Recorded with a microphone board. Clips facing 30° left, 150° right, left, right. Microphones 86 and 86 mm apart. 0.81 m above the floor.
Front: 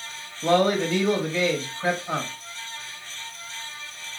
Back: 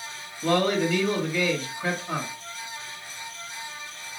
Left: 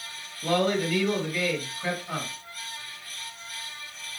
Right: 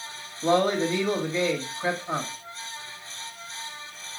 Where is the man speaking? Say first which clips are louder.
Front 2 dB, right 3 dB; 35° right, 1.0 m.